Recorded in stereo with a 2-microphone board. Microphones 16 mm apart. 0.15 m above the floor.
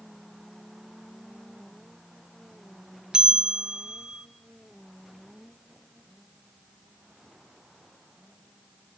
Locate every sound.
3.1 s a bell: 55° right (ahead or behind), 0.8 m